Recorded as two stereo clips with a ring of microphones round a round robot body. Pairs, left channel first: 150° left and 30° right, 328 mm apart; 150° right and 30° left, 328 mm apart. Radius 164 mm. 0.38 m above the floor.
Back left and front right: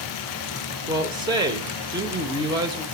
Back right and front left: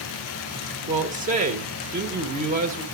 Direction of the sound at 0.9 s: 25° left.